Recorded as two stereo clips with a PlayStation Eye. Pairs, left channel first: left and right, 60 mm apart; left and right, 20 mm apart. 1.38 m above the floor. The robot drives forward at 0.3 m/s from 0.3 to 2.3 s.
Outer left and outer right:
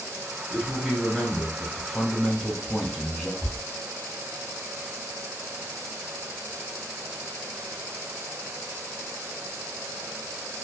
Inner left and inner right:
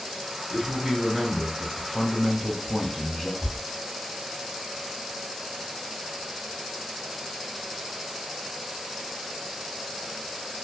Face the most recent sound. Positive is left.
turn(degrees=30)  # may be behind; listen again after turning